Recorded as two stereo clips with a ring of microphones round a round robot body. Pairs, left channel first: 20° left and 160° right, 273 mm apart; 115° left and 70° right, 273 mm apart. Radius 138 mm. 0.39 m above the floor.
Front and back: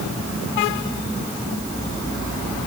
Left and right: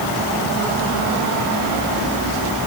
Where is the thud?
No thud in this recording.